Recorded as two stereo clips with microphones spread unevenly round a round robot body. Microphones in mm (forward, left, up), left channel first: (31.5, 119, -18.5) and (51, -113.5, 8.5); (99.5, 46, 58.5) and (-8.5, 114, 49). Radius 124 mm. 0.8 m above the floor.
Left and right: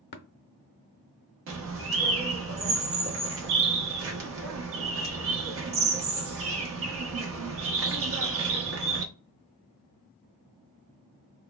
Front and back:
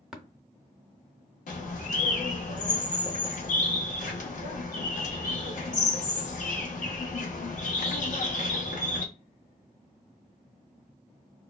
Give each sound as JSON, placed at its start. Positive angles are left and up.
{"t": 0.1, "sound": "tapping", "azimuth_deg": 65, "distance_m": 0.5}
{"t": 1.5, "sound": "a bird", "azimuth_deg": -55, "distance_m": 0.8}